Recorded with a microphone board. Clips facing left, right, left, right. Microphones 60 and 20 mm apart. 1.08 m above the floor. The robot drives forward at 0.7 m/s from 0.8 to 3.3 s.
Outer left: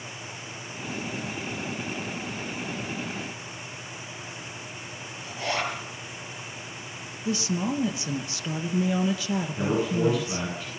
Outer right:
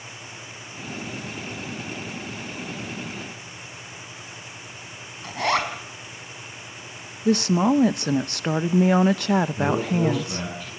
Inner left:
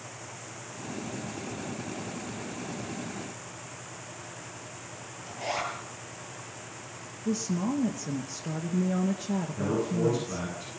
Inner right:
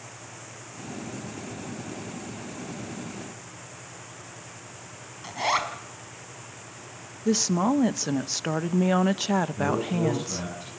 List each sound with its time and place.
5.2 s a zipper: 65° right (ahead or behind), 5 m
7.2 s a woman speaking: 60° right (ahead or behind), 0.8 m
9.6 s a man speaking: centre (ahead or behind), 9.5 m